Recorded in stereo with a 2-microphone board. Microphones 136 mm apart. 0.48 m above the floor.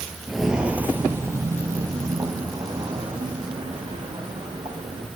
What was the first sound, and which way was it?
Footsteps, 5° left (ahead or behind).